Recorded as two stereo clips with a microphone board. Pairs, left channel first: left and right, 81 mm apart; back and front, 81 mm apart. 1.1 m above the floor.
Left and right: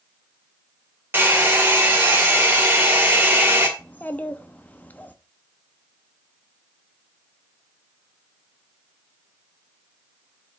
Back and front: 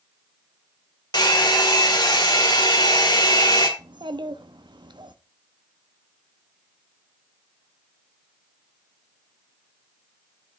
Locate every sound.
1.1 s a hair dryer: 155° right, 2.0 m
3.8 s a child speaking: 20° left, 1.0 m